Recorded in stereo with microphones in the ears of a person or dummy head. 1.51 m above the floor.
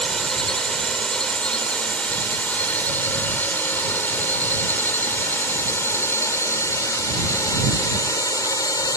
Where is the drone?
Centre (ahead or behind); by 9.0 s 15° left (ahead or behind).